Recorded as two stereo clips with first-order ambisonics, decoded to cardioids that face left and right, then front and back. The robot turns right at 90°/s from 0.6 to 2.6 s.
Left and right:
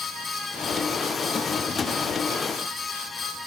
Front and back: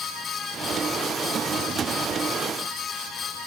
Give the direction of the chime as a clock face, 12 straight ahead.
No chime in this recording.